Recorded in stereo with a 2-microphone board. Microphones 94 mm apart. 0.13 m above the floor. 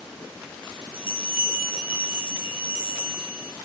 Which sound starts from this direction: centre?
A bell, at 0.9 s.